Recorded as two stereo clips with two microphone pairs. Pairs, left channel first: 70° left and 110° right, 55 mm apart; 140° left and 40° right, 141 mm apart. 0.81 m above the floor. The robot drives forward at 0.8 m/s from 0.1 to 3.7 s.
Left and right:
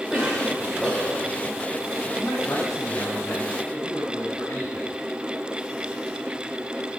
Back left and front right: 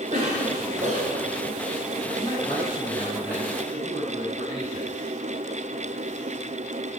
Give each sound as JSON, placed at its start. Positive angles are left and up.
{"t": 0.1, "sound": "a cough", "azimuth_deg": -5, "distance_m": 3.5}
{"t": 2.2, "sound": "a man speaking", "azimuth_deg": 70, "distance_m": 6.5}